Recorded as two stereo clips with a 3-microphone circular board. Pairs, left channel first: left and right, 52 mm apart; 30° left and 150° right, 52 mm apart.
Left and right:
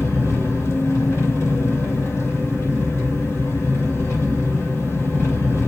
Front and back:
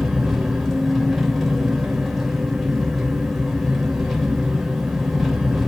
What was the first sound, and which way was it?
An engine running, 115° left.